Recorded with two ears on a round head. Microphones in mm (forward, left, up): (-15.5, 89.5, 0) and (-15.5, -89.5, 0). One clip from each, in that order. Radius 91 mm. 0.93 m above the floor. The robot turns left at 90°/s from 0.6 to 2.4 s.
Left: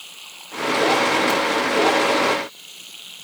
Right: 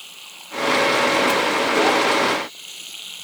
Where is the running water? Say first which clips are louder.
Even; straight ahead; by 3.2 s 160° right.